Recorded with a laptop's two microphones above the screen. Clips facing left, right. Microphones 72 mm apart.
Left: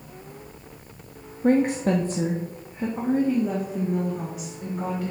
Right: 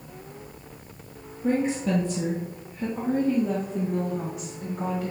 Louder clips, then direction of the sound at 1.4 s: Left 4 dB; 60° left (ahead or behind).